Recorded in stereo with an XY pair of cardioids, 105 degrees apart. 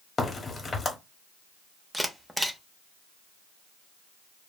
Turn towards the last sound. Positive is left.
turn(degrees=-5)